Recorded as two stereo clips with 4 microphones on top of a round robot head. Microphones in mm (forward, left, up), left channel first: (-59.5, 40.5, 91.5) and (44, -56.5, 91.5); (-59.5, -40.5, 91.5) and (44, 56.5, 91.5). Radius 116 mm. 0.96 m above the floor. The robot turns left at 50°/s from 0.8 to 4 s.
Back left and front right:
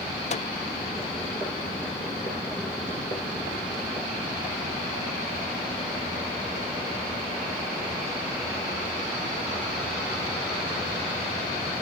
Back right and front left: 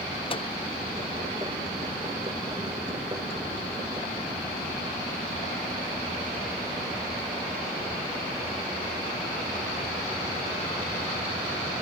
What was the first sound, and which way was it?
A microwave, 175° left.